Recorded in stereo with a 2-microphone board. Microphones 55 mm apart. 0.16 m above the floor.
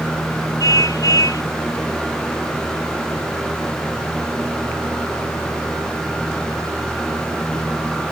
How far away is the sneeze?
No sneeze in this recording.